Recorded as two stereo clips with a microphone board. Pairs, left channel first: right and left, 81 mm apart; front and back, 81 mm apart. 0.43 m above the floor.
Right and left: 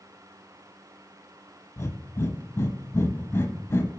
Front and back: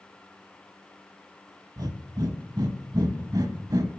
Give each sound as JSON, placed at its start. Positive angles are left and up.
{"t": 1.8, "sound": "breathing", "azimuth_deg": -145, "distance_m": 0.5}